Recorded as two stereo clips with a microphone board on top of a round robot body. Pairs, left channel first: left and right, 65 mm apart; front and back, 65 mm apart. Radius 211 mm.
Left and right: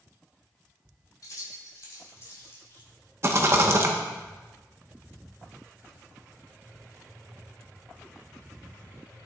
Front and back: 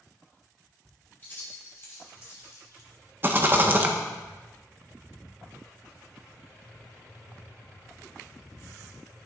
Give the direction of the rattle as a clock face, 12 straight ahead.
4 o'clock.